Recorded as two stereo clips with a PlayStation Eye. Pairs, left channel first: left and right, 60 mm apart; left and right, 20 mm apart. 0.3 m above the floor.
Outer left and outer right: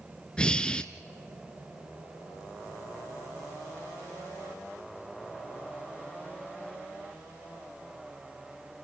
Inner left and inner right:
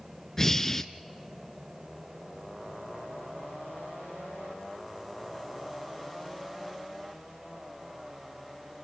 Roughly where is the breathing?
Centre.